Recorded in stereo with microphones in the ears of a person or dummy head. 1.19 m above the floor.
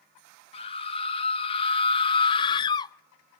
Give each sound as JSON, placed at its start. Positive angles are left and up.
{"t": 0.5, "sound": "a scream", "side_deg": 35, "distance_m": 1.9}